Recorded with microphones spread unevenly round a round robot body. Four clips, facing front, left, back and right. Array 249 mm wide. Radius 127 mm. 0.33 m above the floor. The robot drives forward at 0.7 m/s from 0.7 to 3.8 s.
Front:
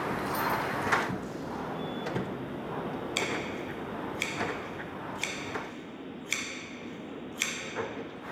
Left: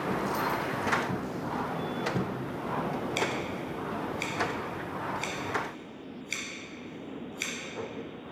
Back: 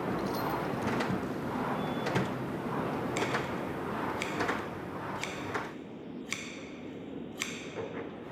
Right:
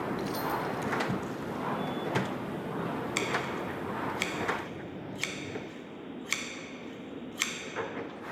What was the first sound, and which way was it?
Keys jangling, 85° right.